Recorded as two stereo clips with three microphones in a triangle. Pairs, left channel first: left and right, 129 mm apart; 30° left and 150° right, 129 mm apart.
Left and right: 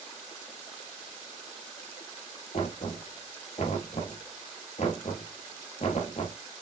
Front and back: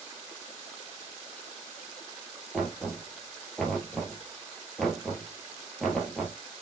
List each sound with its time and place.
2.5 s knocking: 115° left, 2.5 m